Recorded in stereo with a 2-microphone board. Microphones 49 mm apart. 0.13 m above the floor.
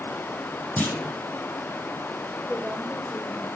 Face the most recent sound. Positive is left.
turn(degrees=20)  # may be behind; listen again after turning